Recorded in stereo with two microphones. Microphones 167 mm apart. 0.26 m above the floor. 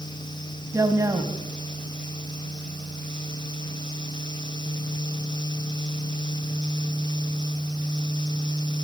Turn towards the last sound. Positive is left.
turn(degrees=-20)  # may be behind; listen again after turning